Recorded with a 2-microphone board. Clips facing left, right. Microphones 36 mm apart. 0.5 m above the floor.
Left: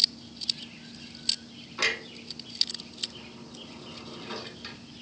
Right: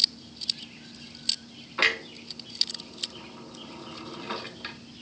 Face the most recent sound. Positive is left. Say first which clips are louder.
# right 4 dB
turn(degrees=-30)  # may be behind; listen again after turning